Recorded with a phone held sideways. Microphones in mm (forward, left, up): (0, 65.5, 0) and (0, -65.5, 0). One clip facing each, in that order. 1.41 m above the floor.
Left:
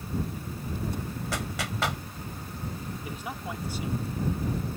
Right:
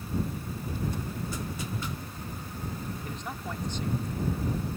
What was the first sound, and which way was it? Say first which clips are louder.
A clap: left 2 dB; 85° left.